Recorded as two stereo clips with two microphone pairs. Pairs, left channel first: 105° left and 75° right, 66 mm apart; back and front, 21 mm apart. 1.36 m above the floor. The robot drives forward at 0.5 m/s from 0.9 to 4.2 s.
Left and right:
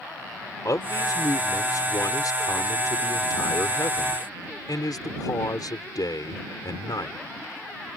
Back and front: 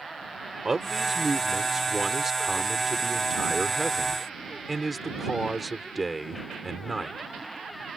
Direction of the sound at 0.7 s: 75° left.